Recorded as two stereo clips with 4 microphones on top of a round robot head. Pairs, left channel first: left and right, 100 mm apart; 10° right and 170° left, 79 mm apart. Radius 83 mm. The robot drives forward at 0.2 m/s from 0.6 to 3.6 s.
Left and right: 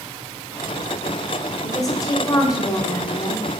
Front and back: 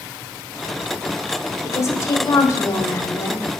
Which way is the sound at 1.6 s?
35° left.